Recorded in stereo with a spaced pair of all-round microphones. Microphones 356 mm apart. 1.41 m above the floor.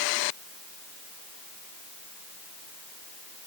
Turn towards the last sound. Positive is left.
No sound to turn to.